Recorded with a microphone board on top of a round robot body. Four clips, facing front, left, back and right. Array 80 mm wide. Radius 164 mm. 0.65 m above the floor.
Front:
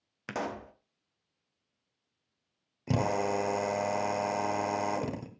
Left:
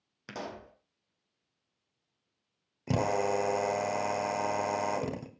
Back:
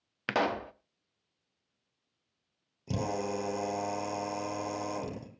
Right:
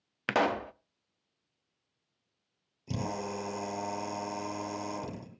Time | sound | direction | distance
0.3 | a pop | 120° right | 0.8 m
2.9 | a drill | 50° left | 2.5 m